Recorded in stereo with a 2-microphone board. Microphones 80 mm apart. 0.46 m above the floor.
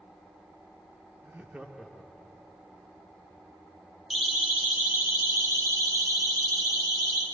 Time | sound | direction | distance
1.2 | laughter | 30° right (ahead or behind) | 0.8 m
4.1 | a siren | 5° right (ahead or behind) | 3 m